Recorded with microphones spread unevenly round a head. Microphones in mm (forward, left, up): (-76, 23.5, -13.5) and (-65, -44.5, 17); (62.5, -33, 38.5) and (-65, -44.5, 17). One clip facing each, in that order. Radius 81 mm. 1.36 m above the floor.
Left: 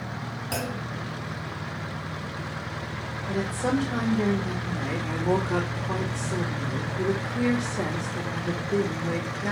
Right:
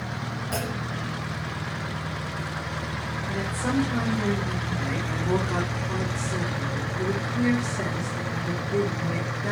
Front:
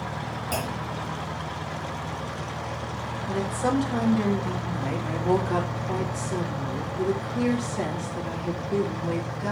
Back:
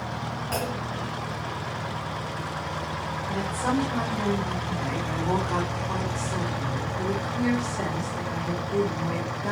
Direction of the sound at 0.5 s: 50° left.